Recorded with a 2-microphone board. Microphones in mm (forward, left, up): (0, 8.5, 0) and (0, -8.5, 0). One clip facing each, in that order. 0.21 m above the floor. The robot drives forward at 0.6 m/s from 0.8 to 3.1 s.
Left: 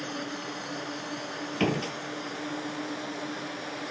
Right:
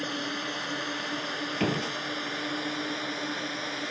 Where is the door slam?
15° left (ahead or behind).